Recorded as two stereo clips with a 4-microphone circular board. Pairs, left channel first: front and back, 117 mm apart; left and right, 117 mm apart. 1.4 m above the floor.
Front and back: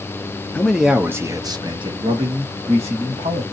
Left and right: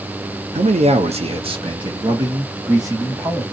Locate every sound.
0.6 s a man speaking: 75° right, 0.7 m; by 3.4 s 155° right, 1.9 m